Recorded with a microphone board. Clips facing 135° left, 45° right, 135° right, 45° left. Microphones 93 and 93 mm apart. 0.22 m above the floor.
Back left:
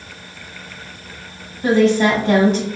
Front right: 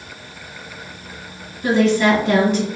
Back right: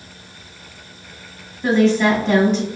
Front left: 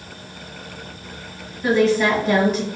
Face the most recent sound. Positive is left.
turn(degrees=125)